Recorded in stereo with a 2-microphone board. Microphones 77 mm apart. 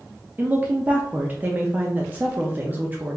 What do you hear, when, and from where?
0.4 s a woman speaking: 25° right (ahead or behind), 0.5 m